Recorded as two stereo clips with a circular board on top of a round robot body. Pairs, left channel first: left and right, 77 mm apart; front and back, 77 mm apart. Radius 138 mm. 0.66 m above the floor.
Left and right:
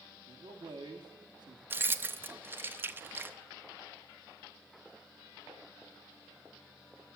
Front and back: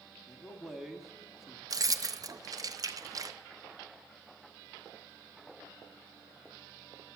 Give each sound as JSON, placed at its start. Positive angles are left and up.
{"t": 0.3, "sound": "a man speaking", "azimuth_deg": -90, "distance_m": 1.5}
{"t": 1.7, "sound": "keys jangling", "azimuth_deg": -150, "distance_m": 0.6}